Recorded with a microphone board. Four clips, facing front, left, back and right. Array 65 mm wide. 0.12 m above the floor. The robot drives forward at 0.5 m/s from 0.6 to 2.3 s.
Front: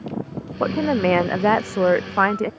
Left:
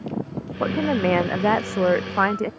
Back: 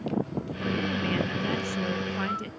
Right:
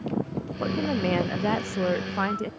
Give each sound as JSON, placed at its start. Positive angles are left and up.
{"t": 0.6, "sound": "a woman speaking", "azimuth_deg": 25}